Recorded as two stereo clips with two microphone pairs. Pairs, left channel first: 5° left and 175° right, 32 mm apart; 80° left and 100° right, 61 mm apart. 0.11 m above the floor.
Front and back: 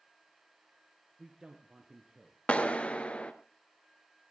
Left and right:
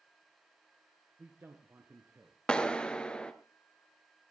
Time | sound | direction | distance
1.2 | a man speaking | 120° right | 2 m
2.5 | a clap | 15° left | 1.1 m